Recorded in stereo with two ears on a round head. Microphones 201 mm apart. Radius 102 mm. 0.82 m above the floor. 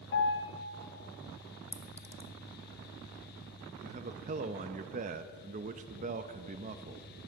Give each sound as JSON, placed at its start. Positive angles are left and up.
{"t": 0.1, "sound": "a piano", "side_deg": 60, "distance_m": 1.2}
{"t": 1.7, "sound": "a clink", "side_deg": 5, "distance_m": 0.8}
{"t": 3.8, "sound": "a man speaking", "side_deg": -35, "distance_m": 0.5}